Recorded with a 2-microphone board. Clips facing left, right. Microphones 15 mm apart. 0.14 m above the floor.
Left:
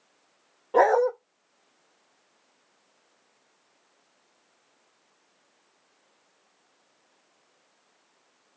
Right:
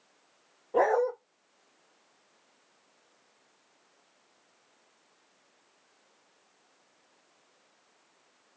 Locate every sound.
0.7 s a dog barking: 70° left (ahead or behind), 1.6 m